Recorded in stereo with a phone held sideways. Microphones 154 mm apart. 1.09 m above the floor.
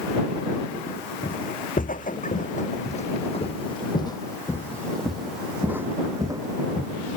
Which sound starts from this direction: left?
Footsteps, at 1.2 s.